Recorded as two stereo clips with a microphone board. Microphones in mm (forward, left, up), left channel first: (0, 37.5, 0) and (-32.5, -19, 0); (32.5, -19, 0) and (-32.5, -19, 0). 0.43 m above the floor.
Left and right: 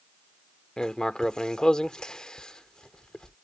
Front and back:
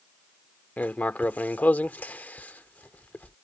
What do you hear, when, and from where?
0.8 s writing: 5° right